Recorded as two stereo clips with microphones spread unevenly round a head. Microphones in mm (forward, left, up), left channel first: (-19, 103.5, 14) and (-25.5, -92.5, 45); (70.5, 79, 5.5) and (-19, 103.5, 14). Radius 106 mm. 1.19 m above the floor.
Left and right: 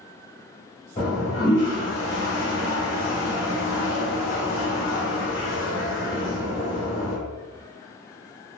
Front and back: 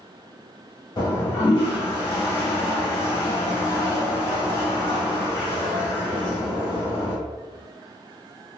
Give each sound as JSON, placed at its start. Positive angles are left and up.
{"t": 1.0, "sound": "a toilet flushing", "azimuth_deg": 30, "distance_m": 1.7}